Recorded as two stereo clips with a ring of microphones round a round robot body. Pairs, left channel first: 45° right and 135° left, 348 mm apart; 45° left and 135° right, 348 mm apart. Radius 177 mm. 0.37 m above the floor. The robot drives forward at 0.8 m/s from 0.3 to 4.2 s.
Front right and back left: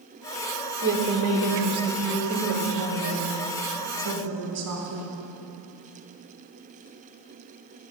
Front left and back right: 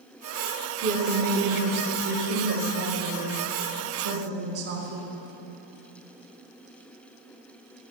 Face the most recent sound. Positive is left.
turn(degrees=175)